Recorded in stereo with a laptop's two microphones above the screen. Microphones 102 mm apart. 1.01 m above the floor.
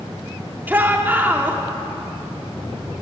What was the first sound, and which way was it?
A shout, 20° right (ahead or behind).